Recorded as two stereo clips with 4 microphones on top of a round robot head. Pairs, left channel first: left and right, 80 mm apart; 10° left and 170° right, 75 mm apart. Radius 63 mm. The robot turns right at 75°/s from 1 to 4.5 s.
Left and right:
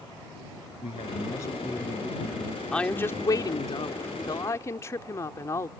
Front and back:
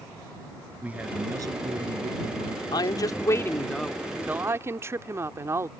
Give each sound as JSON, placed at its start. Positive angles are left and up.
{"t": 0.8, "sound": "a man speaking", "azimuth_deg": 120}
{"t": 2.7, "sound": "a woman speaking", "azimuth_deg": 10}